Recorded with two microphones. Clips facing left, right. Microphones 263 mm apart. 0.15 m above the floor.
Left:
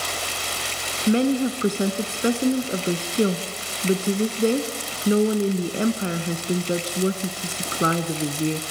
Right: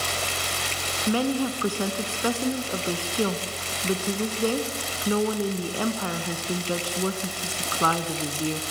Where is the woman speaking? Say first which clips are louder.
Left 5 dB; 25° left (ahead or behind), 1.2 m.